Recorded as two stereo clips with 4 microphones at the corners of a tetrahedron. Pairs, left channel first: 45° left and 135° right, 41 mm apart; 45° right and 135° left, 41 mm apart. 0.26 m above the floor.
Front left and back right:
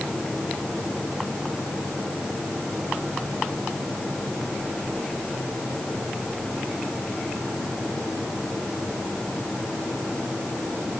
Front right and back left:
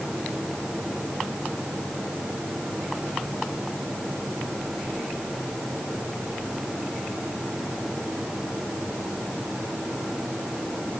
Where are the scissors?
No scissors in this recording.